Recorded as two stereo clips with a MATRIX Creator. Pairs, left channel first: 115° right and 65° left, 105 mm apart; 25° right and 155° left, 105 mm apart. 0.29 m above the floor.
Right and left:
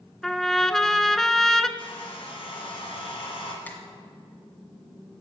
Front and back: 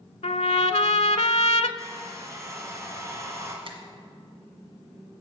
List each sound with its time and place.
0.2 s a trumpet: 25° right, 0.6 m
1.8 s a hair dryer: 145° right, 2.5 m
3.6 s a finger snap: 175° left, 1.6 m